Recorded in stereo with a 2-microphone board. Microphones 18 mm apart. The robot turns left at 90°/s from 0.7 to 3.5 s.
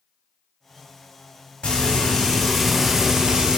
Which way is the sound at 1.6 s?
90° left.